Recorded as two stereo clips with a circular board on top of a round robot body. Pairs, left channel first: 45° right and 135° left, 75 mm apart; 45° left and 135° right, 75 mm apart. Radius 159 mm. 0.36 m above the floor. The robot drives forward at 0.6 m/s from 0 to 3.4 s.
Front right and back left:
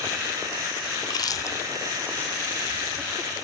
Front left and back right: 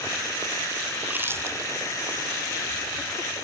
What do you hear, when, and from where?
1.0 s chewing: 65° right, 0.7 m; by 3.3 s 150° right, 1.3 m